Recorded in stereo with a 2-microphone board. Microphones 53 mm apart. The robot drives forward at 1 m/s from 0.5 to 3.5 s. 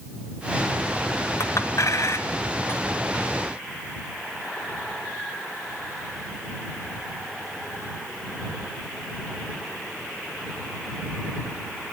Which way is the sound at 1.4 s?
65° left (ahead or behind).